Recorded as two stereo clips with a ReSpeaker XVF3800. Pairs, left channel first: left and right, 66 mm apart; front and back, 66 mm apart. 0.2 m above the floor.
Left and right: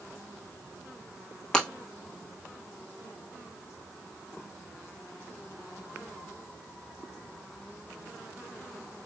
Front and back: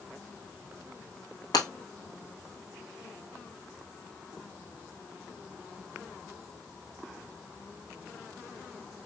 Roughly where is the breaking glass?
Ahead.